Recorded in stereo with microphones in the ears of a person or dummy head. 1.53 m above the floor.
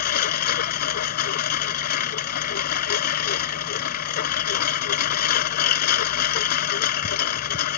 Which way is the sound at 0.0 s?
55° left (ahead or behind).